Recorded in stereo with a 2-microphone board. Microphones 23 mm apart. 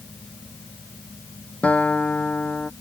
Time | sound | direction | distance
1.6 | a guitar | 85° left | ?